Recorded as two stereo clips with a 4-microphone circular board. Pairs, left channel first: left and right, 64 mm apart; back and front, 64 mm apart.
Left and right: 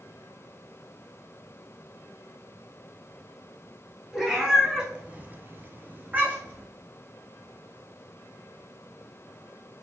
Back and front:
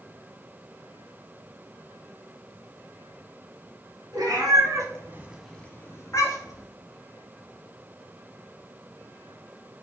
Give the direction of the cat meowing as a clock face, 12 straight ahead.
12 o'clock.